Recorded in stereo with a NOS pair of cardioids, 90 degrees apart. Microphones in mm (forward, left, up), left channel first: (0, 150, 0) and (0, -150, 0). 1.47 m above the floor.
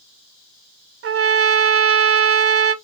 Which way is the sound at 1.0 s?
50° right.